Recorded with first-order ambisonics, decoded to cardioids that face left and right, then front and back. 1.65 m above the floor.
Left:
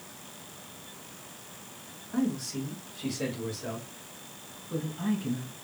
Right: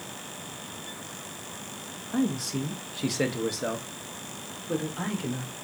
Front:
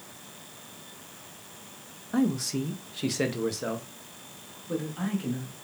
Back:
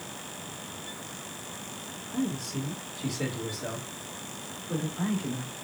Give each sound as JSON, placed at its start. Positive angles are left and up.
{"t": 2.1, "sound": "a man speaking", "azimuth_deg": -20, "distance_m": 1.1}